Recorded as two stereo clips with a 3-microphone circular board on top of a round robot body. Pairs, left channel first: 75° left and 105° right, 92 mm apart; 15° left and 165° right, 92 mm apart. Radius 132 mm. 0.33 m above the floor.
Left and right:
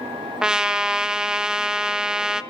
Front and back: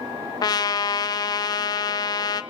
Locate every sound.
0.4 s a trumpet: 25° right, 0.6 m